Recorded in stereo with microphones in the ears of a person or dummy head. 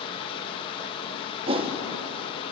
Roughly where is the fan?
Left.